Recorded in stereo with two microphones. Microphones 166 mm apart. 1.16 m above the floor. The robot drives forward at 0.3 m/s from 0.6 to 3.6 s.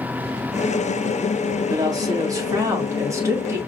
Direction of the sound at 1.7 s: 25° right (ahead or behind).